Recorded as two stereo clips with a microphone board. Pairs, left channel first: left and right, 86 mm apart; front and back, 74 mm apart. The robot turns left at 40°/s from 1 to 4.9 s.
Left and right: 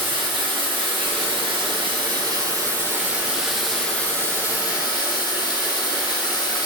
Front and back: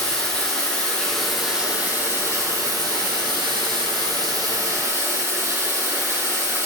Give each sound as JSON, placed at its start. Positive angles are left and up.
{"t": 0.0, "sound": "running water", "azimuth_deg": -75, "distance_m": 2.5}